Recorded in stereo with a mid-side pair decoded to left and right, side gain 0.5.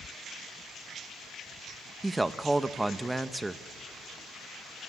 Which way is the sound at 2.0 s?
15° right.